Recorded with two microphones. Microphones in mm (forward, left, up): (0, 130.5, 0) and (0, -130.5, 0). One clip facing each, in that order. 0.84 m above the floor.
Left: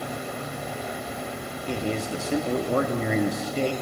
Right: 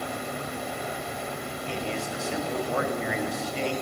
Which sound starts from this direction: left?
A man speaking, at 1.7 s.